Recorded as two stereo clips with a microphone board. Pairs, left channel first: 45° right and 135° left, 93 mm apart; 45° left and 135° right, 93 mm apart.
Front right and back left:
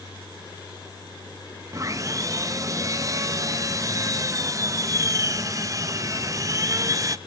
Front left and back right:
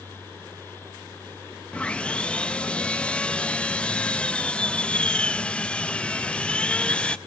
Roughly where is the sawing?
Behind left.